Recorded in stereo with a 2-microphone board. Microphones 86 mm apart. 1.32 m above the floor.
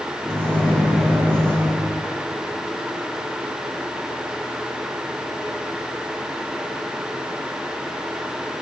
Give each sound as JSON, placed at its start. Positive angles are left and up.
{"t": 0.2, "sound": "a microwave", "side_deg": 10, "distance_m": 1.6}